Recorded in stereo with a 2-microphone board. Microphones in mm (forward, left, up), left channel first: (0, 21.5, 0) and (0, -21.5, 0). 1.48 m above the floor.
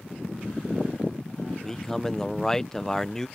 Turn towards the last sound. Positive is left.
turn(degrees=10)  # may be behind; listen again after turning